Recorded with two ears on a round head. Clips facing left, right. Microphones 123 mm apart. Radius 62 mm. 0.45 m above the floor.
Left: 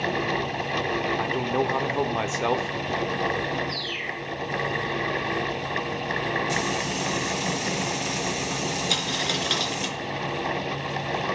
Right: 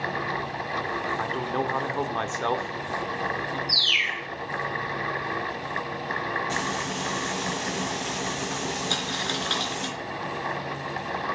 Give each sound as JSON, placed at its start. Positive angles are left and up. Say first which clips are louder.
{"t": 1.2, "sound": "a man speaking", "louder": "left 3 dB", "side_deg": 15, "distance_m": 0.9}
{"t": 3.7, "sound": "a bird", "louder": "left 1 dB", "side_deg": -75, "distance_m": 0.6}
{"t": 6.5, "sound": "frying", "louder": "left 2 dB", "side_deg": 15, "distance_m": 5.0}
{"t": 8.9, "sound": "a dropped coin", "louder": "left 2 dB", "side_deg": 20, "distance_m": 3.0}